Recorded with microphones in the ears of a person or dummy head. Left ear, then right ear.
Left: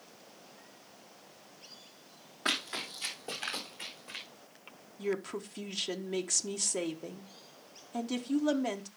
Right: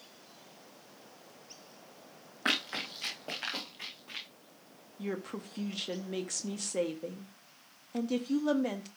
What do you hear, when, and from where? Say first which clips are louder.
2.5 s running footsteps: right 1 dB; 15° right (ahead or behind), 3 m; by 4.2 s 15° left (ahead or behind), 3.5 m
5.0 s a woman speaking: left 4 dB; 5° left (ahead or behind), 0.8 m